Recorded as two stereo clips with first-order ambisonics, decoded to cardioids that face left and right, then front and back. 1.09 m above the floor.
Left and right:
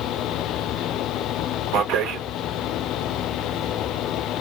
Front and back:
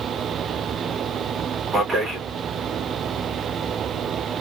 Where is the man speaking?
100° right, 1.3 m.